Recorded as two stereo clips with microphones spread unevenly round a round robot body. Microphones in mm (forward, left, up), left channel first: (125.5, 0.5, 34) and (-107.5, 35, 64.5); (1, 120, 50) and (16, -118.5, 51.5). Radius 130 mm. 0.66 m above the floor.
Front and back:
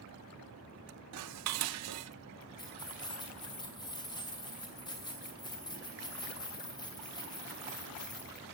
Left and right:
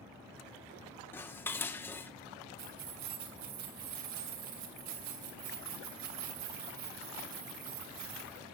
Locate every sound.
1.1 s dishes clattering: 175° left, 1.0 m
2.6 s keys jangling: 80° right, 2.5 m